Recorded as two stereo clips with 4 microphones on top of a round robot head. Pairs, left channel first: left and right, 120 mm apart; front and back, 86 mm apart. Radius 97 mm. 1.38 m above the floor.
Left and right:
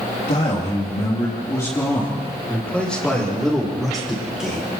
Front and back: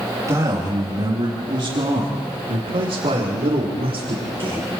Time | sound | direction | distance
0.3 | a man speaking | 125° left | 3.5 m